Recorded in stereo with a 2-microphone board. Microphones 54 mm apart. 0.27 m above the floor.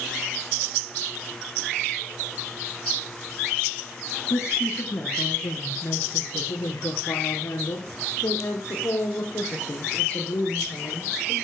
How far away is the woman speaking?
About 3 m.